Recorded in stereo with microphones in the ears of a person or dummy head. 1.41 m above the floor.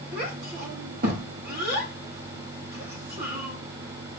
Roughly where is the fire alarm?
No fire alarm in this recording.